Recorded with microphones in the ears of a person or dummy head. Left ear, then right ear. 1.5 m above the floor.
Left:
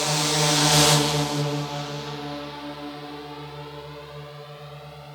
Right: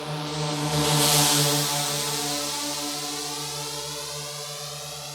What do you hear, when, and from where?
0.0 s a drone: 70° left (ahead or behind); by 5.2 s 75° right (ahead or behind)